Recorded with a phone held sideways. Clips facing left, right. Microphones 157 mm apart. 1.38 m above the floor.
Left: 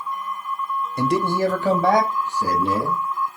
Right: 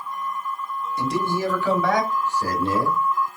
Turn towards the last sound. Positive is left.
turn(degrees=0)  # may be behind; listen again after turning